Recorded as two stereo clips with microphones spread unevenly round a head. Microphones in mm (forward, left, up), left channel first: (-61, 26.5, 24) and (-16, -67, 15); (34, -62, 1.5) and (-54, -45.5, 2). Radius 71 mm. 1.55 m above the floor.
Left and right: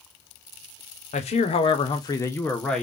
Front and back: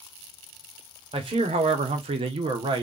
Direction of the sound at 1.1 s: 120° left.